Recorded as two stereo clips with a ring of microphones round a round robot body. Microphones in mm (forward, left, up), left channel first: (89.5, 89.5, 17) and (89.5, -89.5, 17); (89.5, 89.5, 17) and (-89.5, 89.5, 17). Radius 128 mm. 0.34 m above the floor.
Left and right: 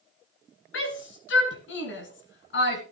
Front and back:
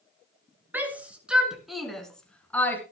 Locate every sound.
0.7 s a shout: 100° left, 5 m; by 2.8 s 80° left, 4.5 m